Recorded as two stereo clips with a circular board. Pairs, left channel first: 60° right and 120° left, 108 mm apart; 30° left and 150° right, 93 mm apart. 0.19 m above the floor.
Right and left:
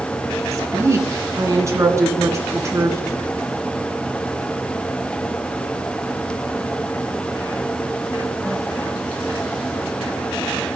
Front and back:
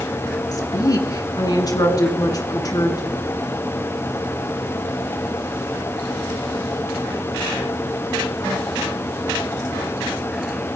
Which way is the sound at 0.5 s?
65° left.